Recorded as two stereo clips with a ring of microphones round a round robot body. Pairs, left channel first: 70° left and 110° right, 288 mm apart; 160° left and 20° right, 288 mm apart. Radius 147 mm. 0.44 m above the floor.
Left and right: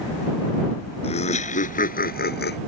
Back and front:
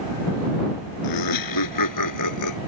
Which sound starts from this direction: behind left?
Laughter, at 1.0 s.